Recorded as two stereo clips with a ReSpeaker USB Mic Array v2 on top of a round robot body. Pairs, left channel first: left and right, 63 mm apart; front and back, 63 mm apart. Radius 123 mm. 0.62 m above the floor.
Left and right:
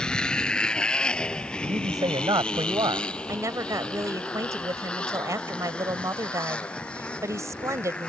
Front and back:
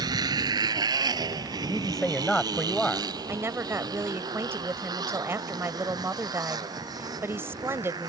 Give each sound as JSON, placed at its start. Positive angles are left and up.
{"t": 0.0, "sound": "a motorcycle", "azimuth_deg": 170}
{"t": 1.6, "sound": "a man speaking", "azimuth_deg": -85}
{"t": 3.3, "sound": "a woman speaking", "azimuth_deg": -130}